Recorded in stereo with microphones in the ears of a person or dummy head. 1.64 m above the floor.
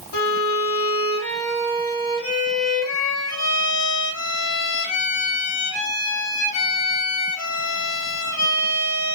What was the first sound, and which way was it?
A violin, 80° left.